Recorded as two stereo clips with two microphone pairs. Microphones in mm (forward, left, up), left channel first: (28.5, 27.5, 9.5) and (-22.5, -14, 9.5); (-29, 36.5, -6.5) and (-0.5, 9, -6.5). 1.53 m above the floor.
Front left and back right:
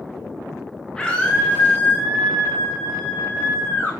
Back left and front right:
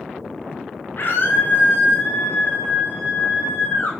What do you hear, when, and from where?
1.0 s a scream: 115° left, 2.5 m; by 3.9 s 95° left, 4.5 m